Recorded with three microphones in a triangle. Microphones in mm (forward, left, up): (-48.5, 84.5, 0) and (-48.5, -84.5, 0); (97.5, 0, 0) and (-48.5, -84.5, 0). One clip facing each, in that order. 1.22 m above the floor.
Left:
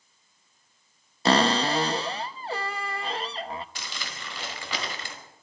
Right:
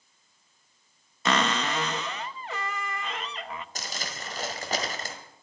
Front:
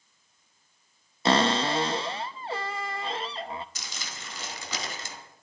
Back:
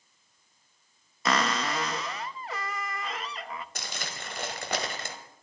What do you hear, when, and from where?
1.2 s a cupboard door: 65° left, 0.6 m
3.8 s crumpling: 130° right, 1.9 m